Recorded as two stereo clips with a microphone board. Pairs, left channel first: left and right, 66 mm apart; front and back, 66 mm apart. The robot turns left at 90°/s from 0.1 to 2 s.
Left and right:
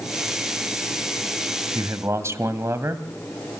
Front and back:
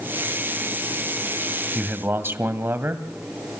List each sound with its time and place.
1.8 s a man speaking: 105° right, 1.9 m; by 3.1 s 130° right, 1.9 m